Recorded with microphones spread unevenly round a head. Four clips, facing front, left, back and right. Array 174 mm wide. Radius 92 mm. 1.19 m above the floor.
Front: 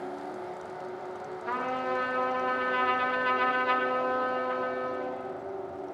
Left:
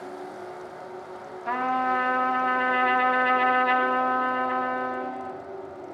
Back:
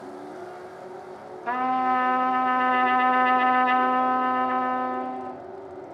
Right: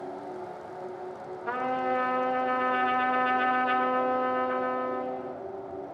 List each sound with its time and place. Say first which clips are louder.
1.5 s a trumpet: left 4 dB, back 8 dB; 145° left, 1.9 m